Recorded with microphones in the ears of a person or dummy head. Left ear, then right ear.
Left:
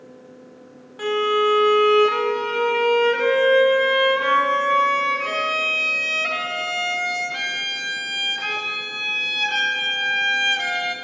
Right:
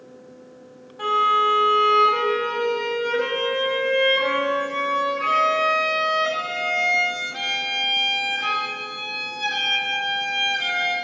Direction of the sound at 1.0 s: 45° left (ahead or behind).